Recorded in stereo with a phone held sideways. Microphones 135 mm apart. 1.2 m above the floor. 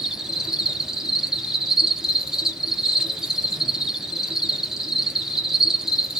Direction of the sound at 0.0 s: 5° right (ahead or behind).